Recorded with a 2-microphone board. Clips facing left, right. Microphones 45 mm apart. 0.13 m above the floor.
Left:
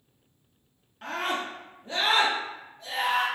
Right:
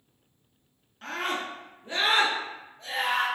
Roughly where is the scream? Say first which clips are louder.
Left 1 dB; centre.